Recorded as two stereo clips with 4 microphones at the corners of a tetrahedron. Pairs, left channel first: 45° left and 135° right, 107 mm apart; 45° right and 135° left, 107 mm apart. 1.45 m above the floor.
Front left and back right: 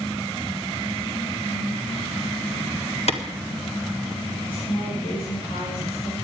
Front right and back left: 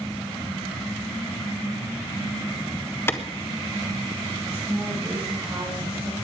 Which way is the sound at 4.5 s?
80° left.